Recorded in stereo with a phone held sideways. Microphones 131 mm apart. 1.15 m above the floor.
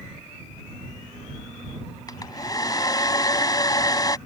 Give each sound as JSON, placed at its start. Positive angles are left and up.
{"t": 2.1, "sound": "a hair dryer", "side_deg": 30}